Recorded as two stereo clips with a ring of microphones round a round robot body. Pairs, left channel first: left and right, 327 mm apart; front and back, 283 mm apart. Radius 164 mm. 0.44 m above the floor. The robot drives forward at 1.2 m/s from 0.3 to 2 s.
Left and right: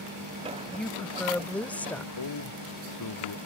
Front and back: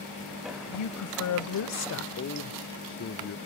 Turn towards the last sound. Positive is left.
turn(degrees=50)